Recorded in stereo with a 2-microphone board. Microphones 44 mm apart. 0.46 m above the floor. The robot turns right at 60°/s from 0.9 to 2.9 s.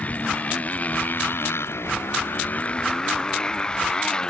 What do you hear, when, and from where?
0.0 s a motorcycle: 40° left; by 4.3 s 160° left